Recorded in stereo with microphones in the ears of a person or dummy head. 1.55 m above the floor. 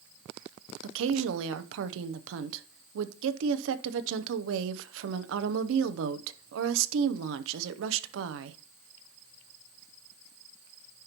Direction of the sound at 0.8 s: 70° right (ahead or behind).